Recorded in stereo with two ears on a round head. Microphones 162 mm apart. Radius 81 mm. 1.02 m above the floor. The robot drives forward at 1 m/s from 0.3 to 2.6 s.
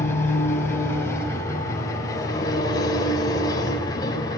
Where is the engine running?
15° left (ahead or behind), 6.5 m; by 4.4 s 20° left (ahead or behind), 4 m.